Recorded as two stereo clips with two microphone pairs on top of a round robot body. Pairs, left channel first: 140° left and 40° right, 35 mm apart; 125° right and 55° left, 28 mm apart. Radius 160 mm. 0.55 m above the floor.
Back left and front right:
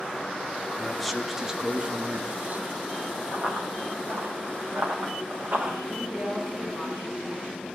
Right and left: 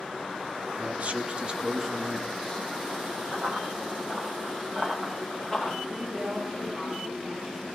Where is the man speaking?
55° left, 1.5 m; by 3.2 s 55° right, 2 m.